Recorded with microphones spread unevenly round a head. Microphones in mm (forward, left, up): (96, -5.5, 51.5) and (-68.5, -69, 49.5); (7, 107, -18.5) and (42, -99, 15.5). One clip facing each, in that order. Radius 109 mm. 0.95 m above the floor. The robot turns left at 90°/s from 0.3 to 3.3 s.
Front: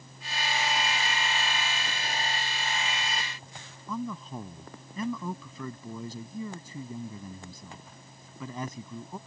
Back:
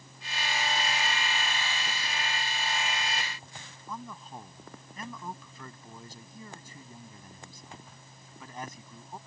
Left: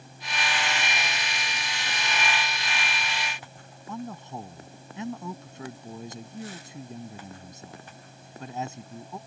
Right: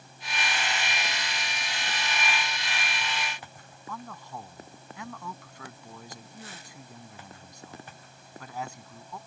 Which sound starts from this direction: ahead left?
A man speaking, at 3.9 s.